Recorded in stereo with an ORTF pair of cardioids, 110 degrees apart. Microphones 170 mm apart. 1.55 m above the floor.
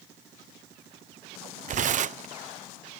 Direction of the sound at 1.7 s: 50° right.